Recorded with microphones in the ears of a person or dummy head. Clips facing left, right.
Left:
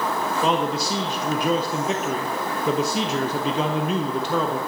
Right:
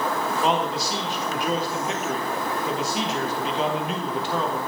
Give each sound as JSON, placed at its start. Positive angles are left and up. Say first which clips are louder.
{"t": 0.4, "sound": "a man speaking", "louder": "left 2 dB", "side_deg": 80, "distance_m": 0.7}